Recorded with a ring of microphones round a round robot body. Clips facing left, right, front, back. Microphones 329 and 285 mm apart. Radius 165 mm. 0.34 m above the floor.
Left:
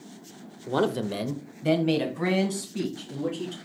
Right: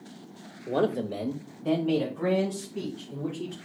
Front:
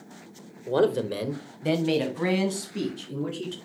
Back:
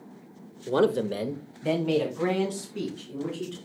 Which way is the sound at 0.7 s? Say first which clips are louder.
Left 1 dB, even; 140° left.